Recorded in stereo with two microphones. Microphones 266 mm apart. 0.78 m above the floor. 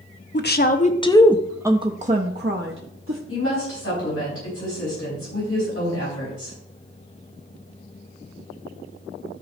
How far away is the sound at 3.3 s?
About 5 m.